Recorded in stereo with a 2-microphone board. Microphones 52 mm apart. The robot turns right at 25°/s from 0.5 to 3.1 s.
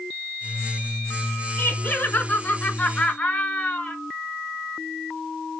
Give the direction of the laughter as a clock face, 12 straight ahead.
9 o'clock.